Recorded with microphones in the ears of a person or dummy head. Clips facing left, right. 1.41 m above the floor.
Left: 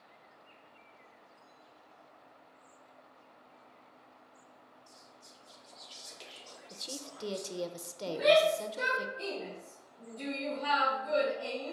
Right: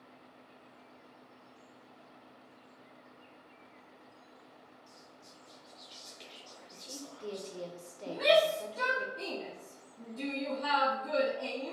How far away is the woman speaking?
About 0.7 m.